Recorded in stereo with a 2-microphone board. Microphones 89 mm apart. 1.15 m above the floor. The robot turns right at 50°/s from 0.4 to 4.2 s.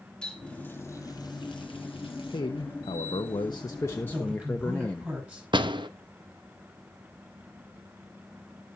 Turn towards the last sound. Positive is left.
turn(degrees=-60)  # may be behind; listen again after turning